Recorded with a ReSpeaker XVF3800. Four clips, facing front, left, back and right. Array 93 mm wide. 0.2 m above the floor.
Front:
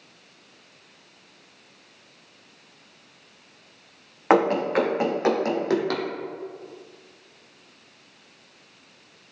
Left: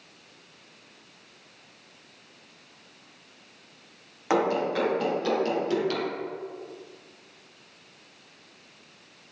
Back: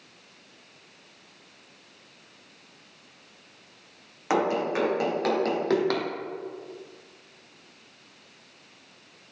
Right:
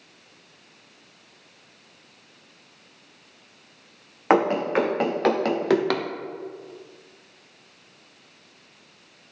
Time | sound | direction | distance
4.3 | running footsteps | 45° right | 3 m